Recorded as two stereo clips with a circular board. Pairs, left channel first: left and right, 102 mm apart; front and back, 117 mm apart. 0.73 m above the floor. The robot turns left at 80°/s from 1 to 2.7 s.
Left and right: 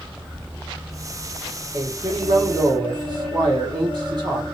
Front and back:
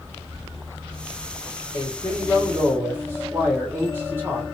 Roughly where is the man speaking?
Ahead right.